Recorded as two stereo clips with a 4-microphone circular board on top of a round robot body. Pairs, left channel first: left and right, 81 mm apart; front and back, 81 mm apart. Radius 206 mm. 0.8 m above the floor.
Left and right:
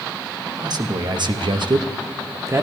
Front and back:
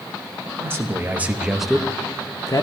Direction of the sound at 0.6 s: 125° right.